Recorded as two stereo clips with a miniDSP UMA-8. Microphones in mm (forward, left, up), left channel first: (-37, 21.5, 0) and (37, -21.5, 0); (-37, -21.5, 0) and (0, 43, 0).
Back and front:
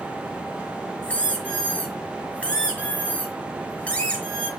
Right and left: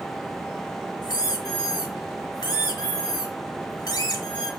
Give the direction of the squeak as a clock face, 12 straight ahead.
5 o'clock.